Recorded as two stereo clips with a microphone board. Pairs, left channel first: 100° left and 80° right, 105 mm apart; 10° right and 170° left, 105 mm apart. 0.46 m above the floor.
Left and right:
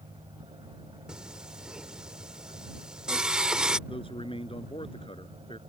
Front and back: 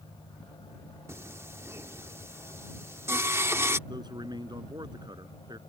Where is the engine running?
45° right.